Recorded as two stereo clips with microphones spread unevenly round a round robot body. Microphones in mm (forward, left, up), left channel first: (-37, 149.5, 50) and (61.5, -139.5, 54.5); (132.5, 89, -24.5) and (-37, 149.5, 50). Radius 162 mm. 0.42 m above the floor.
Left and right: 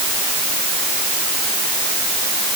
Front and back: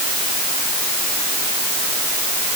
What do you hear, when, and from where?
Only background noise.